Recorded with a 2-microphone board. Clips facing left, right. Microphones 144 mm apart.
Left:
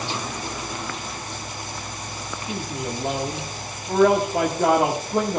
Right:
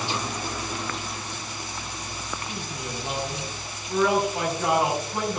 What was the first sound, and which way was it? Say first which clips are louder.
A man speaking: left 5 dB; 85° left.